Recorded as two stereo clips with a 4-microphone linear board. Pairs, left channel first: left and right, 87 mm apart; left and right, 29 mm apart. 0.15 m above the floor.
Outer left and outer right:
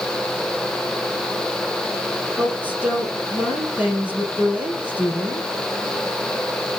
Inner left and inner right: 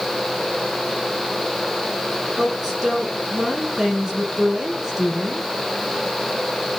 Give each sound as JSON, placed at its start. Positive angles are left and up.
{"t": 2.4, "sound": "a woman speaking", "side_deg": -15, "distance_m": 3.5}